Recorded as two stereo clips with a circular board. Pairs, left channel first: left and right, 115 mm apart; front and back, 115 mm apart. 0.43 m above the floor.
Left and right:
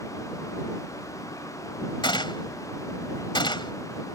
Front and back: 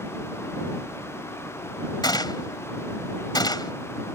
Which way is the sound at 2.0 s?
50° left.